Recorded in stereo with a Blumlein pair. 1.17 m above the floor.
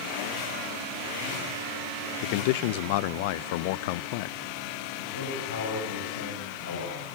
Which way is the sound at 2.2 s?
50° left.